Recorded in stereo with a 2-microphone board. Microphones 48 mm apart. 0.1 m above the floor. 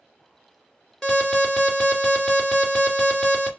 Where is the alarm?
10° left (ahead or behind), 2.5 m.